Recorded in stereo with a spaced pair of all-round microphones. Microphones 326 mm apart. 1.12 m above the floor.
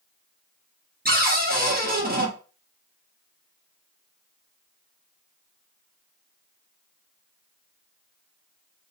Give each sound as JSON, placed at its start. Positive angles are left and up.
{"t": 1.1, "sound": "a cupboard door", "side_deg": -30, "distance_m": 1.0}